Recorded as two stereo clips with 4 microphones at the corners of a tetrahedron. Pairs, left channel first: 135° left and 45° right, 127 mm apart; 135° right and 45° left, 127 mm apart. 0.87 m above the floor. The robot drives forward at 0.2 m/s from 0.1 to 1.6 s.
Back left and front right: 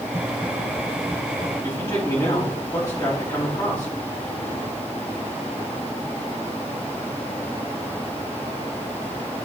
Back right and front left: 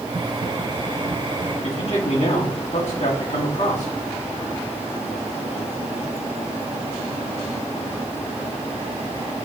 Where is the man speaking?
165° right, 2.5 m.